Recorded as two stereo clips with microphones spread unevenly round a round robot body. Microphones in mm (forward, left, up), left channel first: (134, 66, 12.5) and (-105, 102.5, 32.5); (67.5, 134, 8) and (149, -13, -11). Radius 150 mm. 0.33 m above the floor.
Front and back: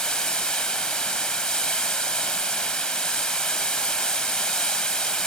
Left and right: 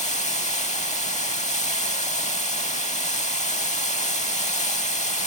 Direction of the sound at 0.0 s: 75° left.